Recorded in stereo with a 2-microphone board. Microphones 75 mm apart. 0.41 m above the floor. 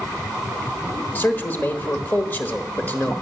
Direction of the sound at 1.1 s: 25° left (ahead or behind).